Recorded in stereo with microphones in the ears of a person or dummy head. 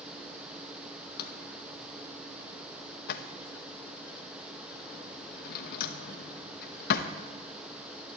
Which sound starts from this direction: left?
A drawer, at 1.2 s.